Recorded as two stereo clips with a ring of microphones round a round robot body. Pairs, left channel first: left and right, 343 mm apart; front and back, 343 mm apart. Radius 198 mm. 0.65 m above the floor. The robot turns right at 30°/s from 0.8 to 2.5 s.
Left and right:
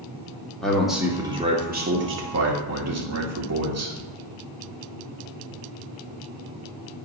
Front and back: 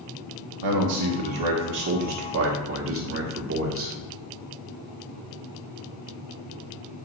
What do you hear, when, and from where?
0.6 s a man speaking: straight behind, 1.7 m; by 4.0 s 130° right, 1.7 m